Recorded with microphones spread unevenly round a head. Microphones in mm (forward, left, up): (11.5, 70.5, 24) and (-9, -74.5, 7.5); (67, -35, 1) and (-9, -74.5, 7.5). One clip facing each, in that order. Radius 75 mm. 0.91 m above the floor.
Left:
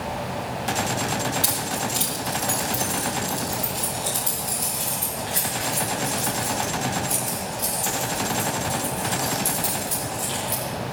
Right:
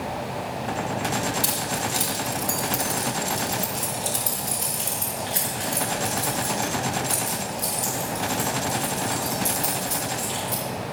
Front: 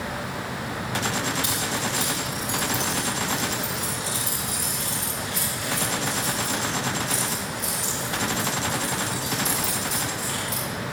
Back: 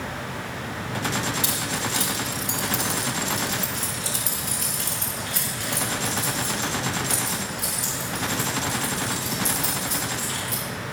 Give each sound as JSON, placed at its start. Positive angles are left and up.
{"t": 1.4, "sound": "keys jangling", "azimuth_deg": 170, "distance_m": 2.5}